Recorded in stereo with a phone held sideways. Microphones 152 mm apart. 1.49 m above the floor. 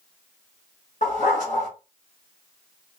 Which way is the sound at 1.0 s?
50° left (ahead or behind).